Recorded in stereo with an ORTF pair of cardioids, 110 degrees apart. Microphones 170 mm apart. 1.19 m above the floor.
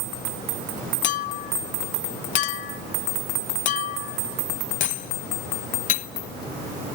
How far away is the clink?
About 0.6 m.